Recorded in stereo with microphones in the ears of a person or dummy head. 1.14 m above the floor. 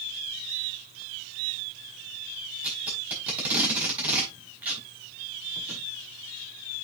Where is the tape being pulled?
10° right (ahead or behind), 4 m.